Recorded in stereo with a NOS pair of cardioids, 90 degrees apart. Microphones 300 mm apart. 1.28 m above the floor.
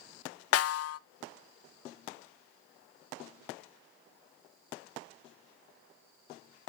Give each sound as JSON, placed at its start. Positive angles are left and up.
{"t": 0.5, "sound": "a snare drum", "azimuth_deg": 50, "distance_m": 0.5}